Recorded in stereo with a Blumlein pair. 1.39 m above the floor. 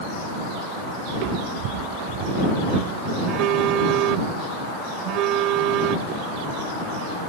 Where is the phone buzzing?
35° right.